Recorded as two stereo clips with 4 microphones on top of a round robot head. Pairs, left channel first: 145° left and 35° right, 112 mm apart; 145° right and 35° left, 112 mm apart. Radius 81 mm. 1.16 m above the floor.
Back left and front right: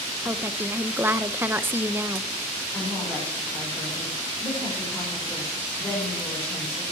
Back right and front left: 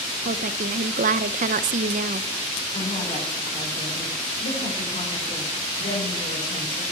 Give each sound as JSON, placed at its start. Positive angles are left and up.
{"t": 0.2, "sound": "a woman speaking", "azimuth_deg": 40, "distance_m": 0.6}
{"t": 2.7, "sound": "a woman speaking", "azimuth_deg": -145, "distance_m": 5.5}